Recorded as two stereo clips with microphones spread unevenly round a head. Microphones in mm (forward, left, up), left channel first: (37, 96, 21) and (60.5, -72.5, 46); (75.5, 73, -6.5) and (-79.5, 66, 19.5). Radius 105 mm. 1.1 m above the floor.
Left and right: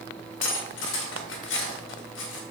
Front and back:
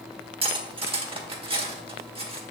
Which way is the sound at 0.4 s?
130° left.